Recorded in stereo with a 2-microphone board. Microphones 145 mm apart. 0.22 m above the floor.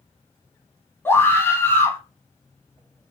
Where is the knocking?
No knocking in this recording.